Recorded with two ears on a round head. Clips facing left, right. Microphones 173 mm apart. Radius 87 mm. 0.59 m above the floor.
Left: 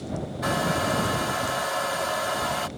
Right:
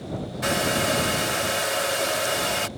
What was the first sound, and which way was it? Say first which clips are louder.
A hair dryer: right 2 dB; 30° right (ahead or behind).